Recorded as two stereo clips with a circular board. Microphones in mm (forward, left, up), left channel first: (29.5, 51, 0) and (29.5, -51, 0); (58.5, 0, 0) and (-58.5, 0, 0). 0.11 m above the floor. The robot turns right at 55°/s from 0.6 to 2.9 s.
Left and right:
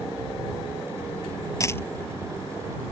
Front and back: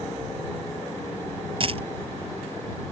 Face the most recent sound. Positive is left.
turn(degrees=-145)